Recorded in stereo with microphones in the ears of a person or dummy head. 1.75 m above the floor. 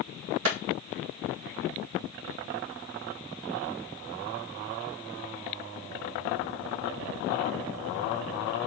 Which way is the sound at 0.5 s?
70° right (ahead or behind).